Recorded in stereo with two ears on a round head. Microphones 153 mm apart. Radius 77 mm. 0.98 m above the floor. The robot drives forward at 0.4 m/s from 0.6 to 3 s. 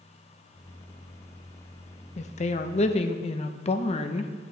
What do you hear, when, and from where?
2.2 s a woman speaking: 40° left (ahead or behind), 0.5 m